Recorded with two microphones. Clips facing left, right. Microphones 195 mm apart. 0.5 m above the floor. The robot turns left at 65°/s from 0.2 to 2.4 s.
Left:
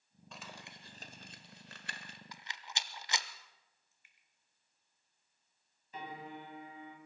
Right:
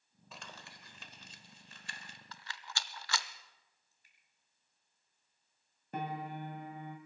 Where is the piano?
60° right (ahead or behind), 2 m.